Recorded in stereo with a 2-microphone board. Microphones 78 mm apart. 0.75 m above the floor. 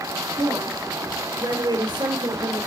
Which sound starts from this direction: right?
A woman speaking, at 0.4 s.